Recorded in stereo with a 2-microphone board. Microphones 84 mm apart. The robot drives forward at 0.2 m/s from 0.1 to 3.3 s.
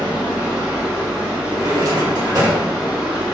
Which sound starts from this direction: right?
A drawer, at 1.6 s.